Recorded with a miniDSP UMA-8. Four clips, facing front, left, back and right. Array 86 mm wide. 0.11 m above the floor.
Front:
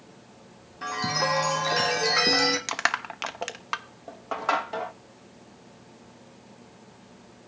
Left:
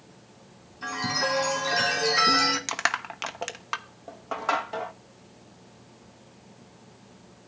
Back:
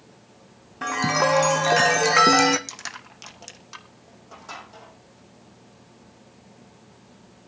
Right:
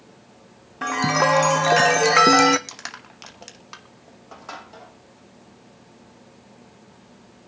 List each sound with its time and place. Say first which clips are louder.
0.8 s a chime: right 9 dB, back 6 dB; 115° right, 1.4 m
2.7 s crushing: left 11 dB, front 12 dB; 35° left, 0.9 m